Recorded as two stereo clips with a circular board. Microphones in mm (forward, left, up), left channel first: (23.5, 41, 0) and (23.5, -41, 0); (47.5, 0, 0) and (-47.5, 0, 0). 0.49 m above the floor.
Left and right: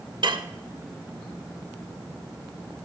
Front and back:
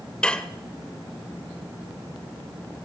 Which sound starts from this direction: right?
Dishes clattering, at 0.2 s.